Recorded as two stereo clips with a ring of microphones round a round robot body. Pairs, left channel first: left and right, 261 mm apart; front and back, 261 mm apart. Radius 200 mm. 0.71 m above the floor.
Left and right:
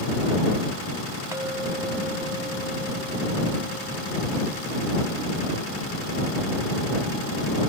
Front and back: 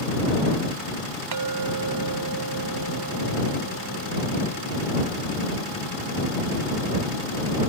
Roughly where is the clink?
Behind.